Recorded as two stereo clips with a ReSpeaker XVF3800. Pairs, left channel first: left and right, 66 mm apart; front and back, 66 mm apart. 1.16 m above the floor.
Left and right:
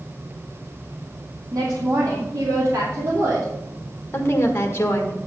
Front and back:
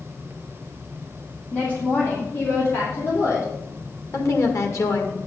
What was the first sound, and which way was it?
A woman speaking, 65° right.